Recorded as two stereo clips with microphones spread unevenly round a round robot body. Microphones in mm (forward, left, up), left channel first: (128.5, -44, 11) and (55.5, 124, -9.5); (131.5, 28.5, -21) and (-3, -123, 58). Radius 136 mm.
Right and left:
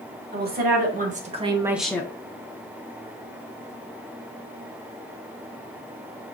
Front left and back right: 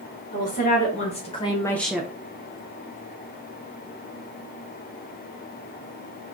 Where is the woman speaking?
85° left, 1.5 m; by 2.1 s 20° right, 0.6 m.